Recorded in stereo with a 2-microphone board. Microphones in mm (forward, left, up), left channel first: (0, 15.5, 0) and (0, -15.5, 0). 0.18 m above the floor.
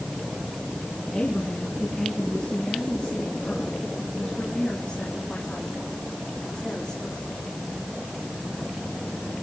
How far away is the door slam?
I don't hear a door slam.